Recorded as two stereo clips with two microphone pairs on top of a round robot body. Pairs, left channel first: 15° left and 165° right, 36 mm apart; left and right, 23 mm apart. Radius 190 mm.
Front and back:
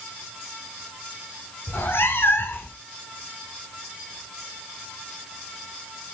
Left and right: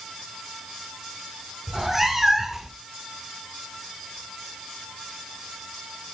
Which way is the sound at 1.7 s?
10° right.